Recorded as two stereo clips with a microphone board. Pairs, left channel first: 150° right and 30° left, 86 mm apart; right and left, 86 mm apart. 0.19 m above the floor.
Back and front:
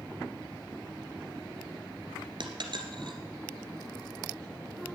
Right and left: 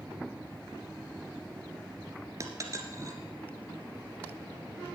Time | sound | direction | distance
2.4 | a dropped coin | 40° left | 1.6 m